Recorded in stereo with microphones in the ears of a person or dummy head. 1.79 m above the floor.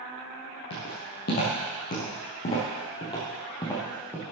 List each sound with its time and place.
0.7 s footsteps: 50° left (ahead or behind), 3.5 m; by 4.2 s 15° left (ahead or behind), 3.5 m